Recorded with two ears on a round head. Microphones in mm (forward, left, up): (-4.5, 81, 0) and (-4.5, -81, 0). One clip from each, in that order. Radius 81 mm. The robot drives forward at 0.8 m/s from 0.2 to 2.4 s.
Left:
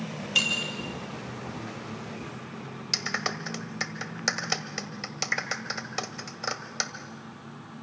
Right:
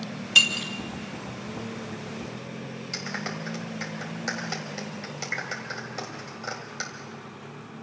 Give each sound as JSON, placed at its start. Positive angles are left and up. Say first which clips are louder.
{"t": 0.3, "sound": "breaking glass", "louder": "right 6 dB", "side_deg": -25, "distance_m": 2.5}
{"t": 2.9, "sound": "a clap", "louder": "left 5 dB", "side_deg": 35, "distance_m": 1.5}